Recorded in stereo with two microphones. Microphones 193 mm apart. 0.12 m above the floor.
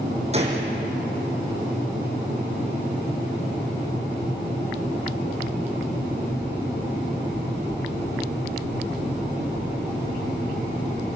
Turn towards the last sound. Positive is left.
turn(degrees=-35)  # may be behind; listen again after turning